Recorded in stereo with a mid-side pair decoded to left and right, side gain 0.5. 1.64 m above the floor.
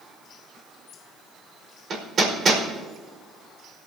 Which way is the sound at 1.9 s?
45° right.